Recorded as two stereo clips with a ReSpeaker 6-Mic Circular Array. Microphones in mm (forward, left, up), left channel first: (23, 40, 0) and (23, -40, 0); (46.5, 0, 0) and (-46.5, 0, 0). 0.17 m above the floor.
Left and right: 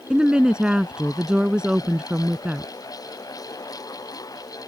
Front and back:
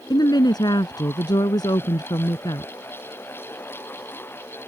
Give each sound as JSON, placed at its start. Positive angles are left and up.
{"t": 0.1, "sound": "a woman speaking", "azimuth_deg": -15}